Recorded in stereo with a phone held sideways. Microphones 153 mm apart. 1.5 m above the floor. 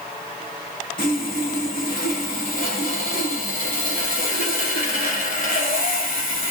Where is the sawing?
65° left (ahead or behind), 1.1 m.